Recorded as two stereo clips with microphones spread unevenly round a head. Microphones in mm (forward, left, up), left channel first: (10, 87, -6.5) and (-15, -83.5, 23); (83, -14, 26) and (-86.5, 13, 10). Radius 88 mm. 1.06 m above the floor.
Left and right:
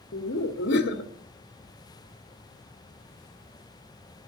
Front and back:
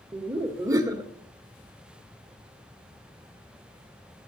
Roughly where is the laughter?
Left.